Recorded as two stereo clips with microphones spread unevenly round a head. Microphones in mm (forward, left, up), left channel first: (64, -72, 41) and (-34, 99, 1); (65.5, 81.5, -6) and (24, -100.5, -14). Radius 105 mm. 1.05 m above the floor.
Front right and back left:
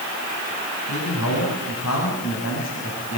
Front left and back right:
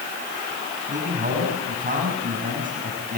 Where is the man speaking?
55° right, 7 m; by 3.2 s 60° right, 8 m.